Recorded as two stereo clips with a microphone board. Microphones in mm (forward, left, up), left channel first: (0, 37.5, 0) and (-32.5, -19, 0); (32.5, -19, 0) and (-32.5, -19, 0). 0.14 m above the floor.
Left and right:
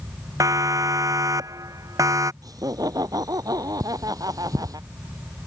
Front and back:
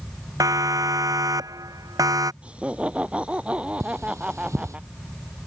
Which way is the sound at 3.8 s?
140° right.